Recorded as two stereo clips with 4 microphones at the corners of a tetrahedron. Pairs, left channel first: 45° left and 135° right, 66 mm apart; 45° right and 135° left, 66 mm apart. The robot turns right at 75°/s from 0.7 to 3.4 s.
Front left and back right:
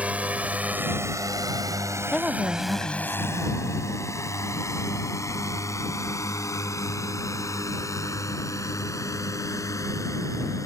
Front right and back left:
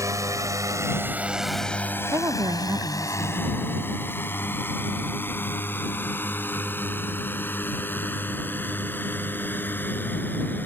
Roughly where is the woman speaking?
Behind left.